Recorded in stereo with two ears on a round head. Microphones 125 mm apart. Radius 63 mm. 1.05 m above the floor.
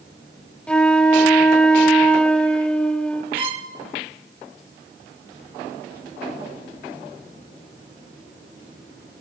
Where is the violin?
40° right (ahead or behind), 1.5 m.